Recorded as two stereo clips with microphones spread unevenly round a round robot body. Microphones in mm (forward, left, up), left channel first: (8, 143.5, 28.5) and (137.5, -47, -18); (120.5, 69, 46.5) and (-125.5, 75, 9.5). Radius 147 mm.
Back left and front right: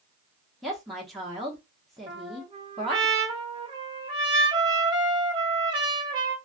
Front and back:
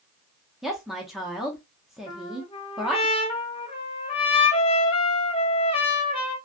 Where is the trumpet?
65° right, 0.9 m.